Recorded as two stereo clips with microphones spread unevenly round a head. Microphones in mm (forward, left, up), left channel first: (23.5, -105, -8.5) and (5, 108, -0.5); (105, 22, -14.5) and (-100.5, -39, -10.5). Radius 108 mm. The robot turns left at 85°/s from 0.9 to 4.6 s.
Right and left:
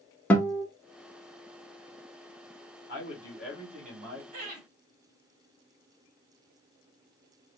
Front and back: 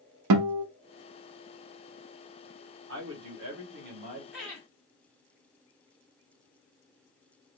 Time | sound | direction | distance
0.3 | a guitar | 170° right | 0.6 m
2.9 | a man speaking | 130° right | 1.6 m
4.3 | laughter | 115° left | 3 m